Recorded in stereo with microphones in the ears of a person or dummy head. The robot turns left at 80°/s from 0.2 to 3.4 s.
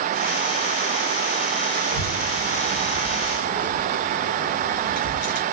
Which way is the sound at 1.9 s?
60° right (ahead or behind).